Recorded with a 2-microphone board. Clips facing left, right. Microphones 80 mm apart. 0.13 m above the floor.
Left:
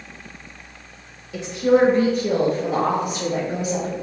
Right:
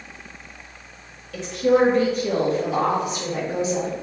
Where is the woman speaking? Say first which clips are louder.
Left 1 dB; 15° left (ahead or behind), 1.6 m; by 3.9 s 60° left (ahead or behind), 3.5 m.